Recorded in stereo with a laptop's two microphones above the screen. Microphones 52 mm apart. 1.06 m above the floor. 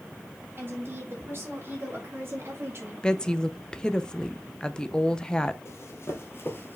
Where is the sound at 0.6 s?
45° right (ahead or behind), 3.5 m; by 2.9 s 50° right (ahead or behind), 2 m.